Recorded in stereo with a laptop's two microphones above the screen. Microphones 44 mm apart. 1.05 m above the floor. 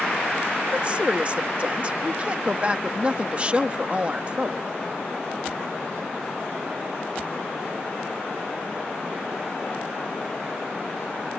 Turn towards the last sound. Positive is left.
turn(degrees=-30)  # may be behind; listen again after turning